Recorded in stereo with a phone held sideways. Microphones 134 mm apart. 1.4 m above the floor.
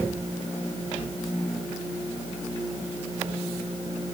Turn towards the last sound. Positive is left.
No sound to turn to.